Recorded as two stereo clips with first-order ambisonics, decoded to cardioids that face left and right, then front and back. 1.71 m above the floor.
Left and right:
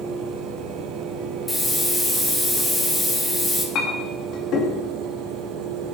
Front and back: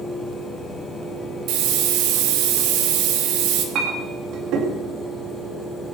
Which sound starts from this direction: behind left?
A clink, at 3.8 s.